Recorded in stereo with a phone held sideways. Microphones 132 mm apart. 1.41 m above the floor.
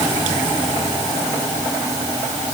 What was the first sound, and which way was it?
Only background noise.